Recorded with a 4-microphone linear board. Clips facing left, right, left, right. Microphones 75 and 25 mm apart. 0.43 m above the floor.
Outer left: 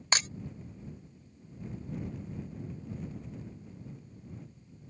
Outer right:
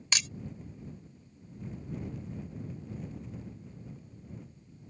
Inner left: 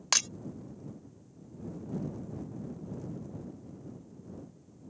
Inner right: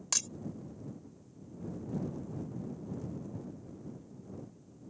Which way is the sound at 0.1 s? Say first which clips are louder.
Outer left 4 dB, inner left 7 dB; 40° left (ahead or behind).